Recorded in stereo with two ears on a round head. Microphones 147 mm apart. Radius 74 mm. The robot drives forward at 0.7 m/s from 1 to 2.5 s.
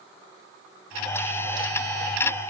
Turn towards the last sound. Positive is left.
No sound to turn to.